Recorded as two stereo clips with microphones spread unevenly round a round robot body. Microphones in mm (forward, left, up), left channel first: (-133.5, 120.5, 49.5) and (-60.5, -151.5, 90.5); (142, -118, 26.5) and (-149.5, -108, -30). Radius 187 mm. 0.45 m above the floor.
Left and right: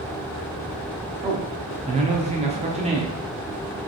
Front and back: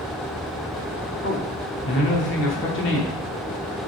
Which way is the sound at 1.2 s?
15° right.